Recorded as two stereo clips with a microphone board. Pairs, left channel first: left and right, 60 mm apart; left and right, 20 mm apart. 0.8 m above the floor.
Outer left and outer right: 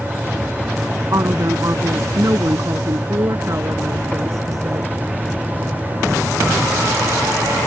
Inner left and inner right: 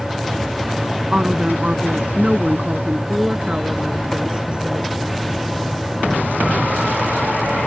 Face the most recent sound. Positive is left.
turn(degrees=-60)  # may be behind; listen again after turning